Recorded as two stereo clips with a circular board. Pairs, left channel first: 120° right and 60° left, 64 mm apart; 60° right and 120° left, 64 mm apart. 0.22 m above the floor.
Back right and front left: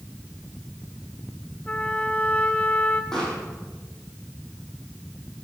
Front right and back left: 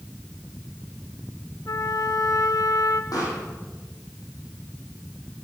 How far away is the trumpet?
About 1.2 m.